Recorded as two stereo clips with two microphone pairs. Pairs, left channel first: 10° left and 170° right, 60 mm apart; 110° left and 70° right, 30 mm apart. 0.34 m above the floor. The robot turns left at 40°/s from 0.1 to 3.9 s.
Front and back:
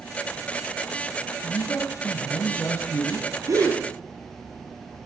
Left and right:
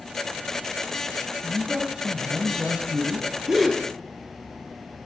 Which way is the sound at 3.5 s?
145° right.